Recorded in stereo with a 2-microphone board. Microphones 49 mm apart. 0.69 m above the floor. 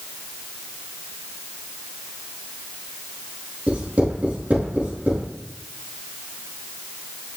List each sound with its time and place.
3.7 s writing: 30° right (ahead or behind), 4.5 m